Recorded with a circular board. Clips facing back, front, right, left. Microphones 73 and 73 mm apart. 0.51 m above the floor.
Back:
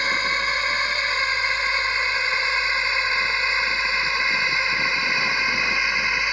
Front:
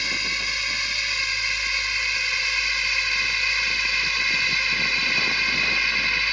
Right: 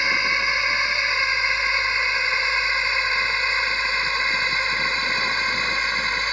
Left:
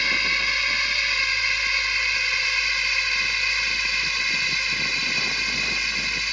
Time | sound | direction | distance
0.0 | a drone | 150° right | ?